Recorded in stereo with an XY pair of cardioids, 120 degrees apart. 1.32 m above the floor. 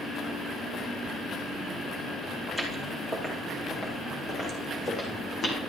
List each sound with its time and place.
2.5 s footsteps: 15° left, 4.5 m; by 5.6 s 45° left, 3.5 m